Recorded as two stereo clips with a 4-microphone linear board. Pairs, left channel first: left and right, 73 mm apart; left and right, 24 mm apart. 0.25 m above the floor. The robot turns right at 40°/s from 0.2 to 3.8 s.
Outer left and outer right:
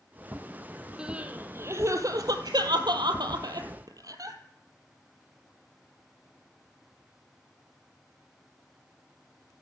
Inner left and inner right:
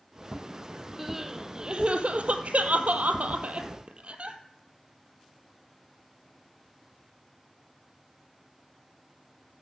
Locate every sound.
1.0 s crying: 10° right (ahead or behind), 1.1 m; by 4.4 s 55° right (ahead or behind), 1.1 m